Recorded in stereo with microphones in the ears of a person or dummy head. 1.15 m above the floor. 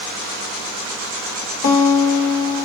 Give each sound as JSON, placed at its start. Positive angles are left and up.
{"t": 1.6, "sound": "a guitar", "side_deg": 50, "distance_m": 3.0}